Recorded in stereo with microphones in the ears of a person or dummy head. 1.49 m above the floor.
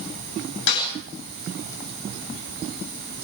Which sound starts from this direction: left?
A snare drum, at 0.7 s.